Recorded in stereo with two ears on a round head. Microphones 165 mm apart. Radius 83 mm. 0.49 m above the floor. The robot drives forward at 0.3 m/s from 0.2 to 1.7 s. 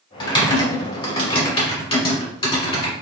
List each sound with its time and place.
0.2 s typing on a keyboard: 25° left (ahead or behind), 1.7 m; by 2.9 s 30° left (ahead or behind), 1.6 m